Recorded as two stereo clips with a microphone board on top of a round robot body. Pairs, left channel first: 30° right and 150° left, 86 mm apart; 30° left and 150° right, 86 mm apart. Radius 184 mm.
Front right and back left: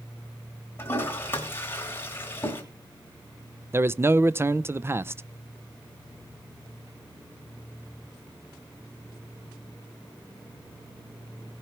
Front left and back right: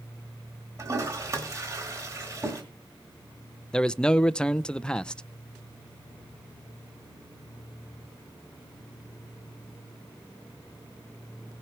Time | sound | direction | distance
0.8 | a toilet flushing | 95° right | 2.5 m
3.7 | a man speaking | 105° left | 0.7 m